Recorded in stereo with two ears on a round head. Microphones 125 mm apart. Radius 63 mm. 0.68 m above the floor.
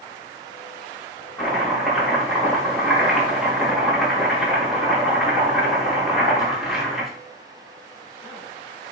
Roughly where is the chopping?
Centre.